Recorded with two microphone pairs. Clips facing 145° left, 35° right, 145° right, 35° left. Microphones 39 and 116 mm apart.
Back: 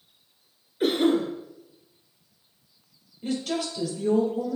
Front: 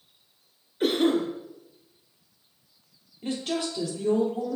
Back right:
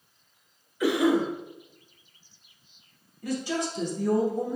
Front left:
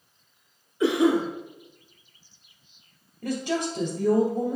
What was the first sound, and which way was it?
A cough, 60° left.